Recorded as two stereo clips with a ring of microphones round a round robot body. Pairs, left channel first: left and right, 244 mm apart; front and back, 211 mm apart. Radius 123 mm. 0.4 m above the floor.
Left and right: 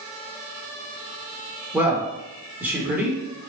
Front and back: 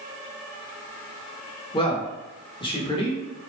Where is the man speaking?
20° right, 1.1 m.